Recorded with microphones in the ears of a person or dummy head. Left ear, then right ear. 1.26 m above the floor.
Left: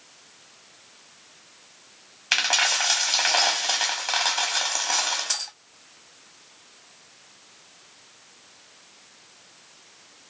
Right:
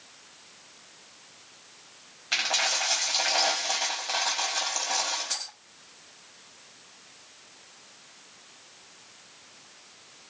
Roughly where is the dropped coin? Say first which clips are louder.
Left 5 dB; left.